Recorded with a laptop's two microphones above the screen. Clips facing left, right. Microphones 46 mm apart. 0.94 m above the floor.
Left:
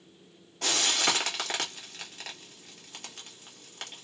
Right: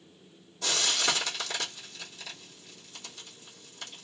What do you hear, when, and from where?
0.6 s frying: 70° left (ahead or behind), 2 m